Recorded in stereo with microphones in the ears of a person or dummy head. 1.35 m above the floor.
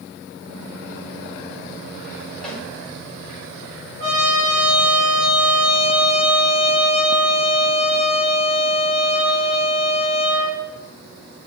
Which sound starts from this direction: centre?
A snare drum, at 2.4 s.